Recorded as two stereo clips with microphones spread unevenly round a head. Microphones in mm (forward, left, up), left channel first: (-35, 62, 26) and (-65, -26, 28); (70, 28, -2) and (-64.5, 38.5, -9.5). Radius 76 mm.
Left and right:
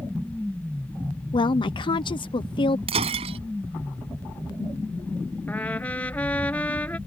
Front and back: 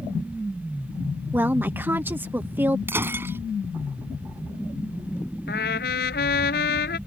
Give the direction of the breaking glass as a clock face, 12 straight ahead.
4 o'clock.